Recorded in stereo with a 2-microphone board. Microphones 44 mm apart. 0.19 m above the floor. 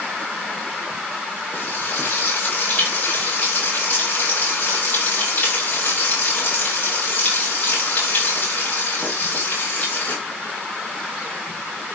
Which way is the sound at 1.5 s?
45° left (ahead or behind).